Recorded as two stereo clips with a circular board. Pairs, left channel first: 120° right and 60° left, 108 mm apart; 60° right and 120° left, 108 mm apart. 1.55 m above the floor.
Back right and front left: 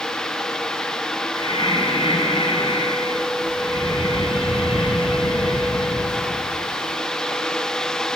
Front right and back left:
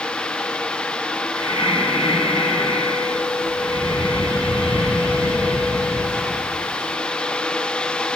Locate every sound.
1.4 s breathing: 80° right, 5.5 m